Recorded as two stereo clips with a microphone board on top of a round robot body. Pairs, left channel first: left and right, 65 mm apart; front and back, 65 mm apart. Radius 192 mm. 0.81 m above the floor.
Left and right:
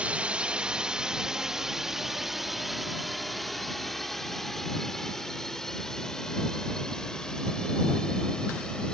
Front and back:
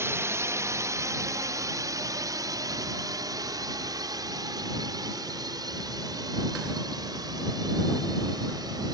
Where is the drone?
155° right; by 8.9 s 170° left.